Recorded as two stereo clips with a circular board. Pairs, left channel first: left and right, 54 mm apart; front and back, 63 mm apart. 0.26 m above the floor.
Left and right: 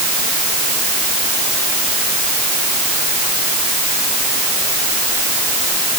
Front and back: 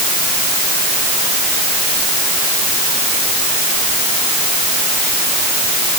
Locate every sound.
Only background noise.